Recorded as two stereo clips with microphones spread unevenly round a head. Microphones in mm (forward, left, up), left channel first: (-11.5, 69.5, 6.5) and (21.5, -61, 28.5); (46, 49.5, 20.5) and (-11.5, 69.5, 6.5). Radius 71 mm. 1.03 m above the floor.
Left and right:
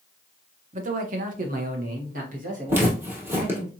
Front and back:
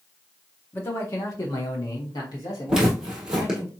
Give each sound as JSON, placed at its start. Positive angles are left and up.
{"t": 0.7, "sound": "a man speaking", "azimuth_deg": -85, "distance_m": 0.8}
{"t": 2.7, "sound": "footsteps", "azimuth_deg": -105, "distance_m": 1.1}